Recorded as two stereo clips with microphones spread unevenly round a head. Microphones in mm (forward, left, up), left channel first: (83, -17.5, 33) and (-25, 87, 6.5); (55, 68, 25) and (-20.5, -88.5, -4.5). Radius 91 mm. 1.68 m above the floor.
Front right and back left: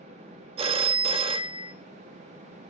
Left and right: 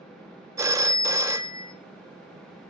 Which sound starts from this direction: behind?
A phone ringing, at 0.6 s.